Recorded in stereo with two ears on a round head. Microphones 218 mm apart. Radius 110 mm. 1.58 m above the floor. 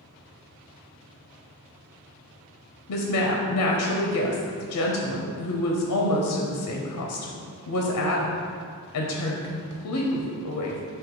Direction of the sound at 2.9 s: 80° left.